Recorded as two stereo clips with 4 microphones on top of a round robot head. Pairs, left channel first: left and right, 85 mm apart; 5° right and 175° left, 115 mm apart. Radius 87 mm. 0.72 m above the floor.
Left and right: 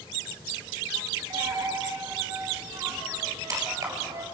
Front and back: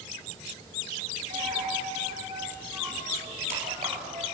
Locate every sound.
1.3 s a dropped coin: 140° right, 4 m